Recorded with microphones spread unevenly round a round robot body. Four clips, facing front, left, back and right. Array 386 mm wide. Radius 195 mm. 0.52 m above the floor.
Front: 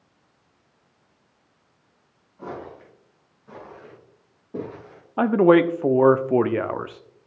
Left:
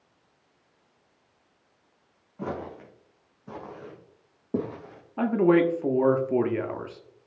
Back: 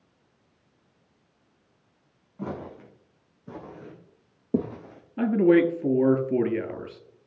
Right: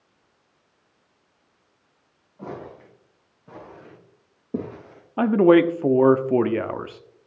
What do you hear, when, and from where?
2.4 s footsteps: 140° left, 3 m; by 5.0 s 175° right, 3 m
5.2 s a man speaking: 95° right, 0.6 m